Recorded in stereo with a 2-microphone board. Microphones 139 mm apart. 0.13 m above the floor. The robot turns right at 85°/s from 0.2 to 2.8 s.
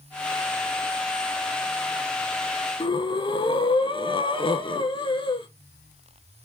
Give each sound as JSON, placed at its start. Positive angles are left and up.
{"t": 2.8, "sound": "breathing", "side_deg": 35, "distance_m": 0.7}